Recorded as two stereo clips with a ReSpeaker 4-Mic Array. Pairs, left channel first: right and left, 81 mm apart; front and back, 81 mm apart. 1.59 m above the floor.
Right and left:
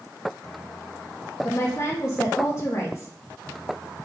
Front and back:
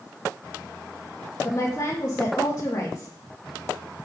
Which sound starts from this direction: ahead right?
A woman speaking, at 1.4 s.